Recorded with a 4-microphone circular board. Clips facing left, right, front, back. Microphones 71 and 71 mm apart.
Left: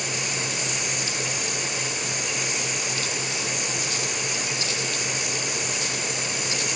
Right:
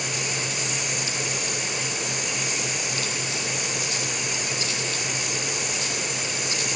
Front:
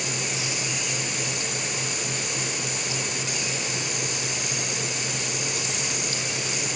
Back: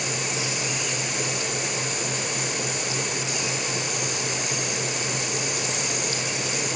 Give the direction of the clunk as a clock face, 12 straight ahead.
I don't hear a clunk.